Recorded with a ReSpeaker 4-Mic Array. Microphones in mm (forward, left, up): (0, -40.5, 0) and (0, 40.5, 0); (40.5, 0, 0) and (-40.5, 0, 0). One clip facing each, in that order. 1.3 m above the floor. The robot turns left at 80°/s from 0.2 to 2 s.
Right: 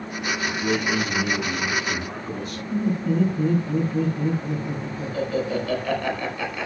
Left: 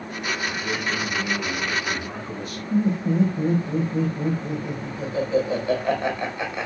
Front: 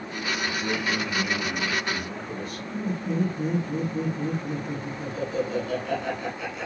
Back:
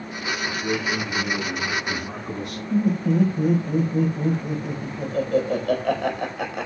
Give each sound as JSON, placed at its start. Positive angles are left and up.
{"t": 0.5, "sound": "a man speaking", "azimuth_deg": -55, "distance_m": 7.0}
{"t": 2.7, "sound": "laughter", "azimuth_deg": 155, "distance_m": 5.0}